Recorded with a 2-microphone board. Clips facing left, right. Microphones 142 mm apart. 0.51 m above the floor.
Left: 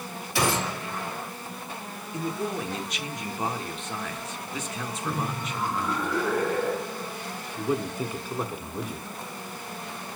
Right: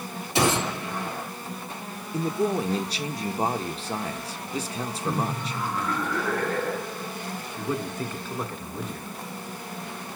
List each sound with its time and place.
0.3 s a gunshot: 20° right (ahead or behind), 3.5 m
2.1 s a man speaking: 35° right (ahead or behind), 1.0 m
5.0 s laughter: 10° left (ahead or behind), 1.8 m
7.6 s a man speaking: 10° left (ahead or behind), 1.1 m